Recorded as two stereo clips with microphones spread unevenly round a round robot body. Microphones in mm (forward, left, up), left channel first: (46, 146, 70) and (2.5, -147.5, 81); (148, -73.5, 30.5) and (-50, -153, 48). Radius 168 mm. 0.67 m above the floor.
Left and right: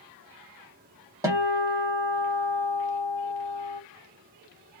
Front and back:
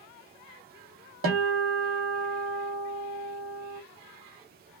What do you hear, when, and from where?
1.2 s a guitar: straight behind, 1.1 m